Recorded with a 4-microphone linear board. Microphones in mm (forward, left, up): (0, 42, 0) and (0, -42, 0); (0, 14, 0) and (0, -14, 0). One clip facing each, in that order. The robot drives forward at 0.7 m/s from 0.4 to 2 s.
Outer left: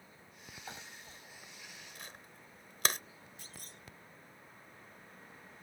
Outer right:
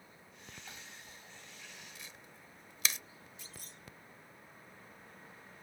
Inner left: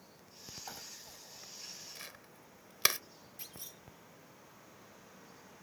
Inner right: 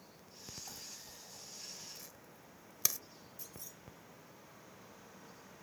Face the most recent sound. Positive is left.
turn(degrees=50)  # may be behind; listen again after turning